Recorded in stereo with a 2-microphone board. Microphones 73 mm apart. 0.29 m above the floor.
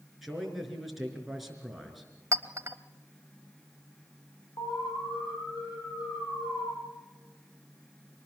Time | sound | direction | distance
0.2 | a man speaking | centre (ahead or behind) | 4 m
2.3 | a clink | 45° right (ahead or behind) | 0.8 m
4.6 | an alarm | 80° left | 8 m